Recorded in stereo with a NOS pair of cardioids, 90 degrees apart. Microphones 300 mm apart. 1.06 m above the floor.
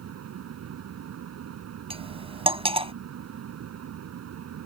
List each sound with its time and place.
0.0 s a fan: 60° right
1.9 s cutlery clinking: 20° right